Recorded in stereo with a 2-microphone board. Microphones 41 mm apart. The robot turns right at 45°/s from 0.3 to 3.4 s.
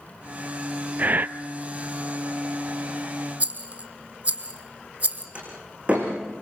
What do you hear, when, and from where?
1.0 s breathing: 40° right (ahead or behind), 0.5 m; by 1.3 s 55° right (ahead or behind), 0.5 m
3.4 s a rattle: 40° right (ahead or behind), 1.5 m
5.3 s a door slam: 25° right (ahead or behind), 8 m